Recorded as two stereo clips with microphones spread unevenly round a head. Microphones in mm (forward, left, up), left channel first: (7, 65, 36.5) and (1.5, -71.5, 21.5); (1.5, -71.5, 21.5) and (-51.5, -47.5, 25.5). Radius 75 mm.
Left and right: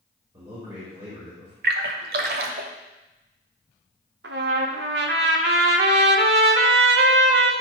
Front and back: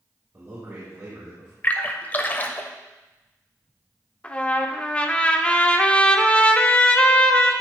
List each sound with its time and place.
0.3 s a man speaking: 160° right, 4 m
1.6 s a splash: 80° right, 1.0 m
4.2 s a trumpet: 95° right, 1.0 m